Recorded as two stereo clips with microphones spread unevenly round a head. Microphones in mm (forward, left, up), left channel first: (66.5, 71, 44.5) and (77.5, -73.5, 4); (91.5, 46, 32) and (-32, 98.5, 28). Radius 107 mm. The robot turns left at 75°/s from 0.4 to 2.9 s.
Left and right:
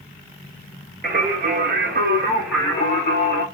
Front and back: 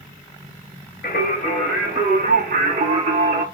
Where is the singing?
60° right, 1.7 m; by 3.4 s 160° left, 1.7 m.